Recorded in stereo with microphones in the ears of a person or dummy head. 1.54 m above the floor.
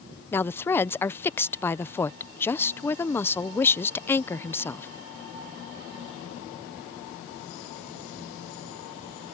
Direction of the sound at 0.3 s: 10° left (ahead or behind).